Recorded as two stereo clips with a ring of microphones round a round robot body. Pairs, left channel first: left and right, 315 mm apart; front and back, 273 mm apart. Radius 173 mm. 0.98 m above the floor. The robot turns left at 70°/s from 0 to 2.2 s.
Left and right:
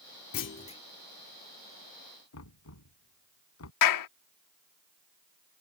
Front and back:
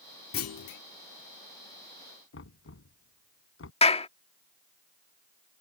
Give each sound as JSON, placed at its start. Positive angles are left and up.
{"t": 0.3, "sound": "a clunk", "azimuth_deg": 45}
{"t": 2.3, "sound": "knocking", "azimuth_deg": 40}
{"t": 3.8, "sound": "a clap", "azimuth_deg": 70}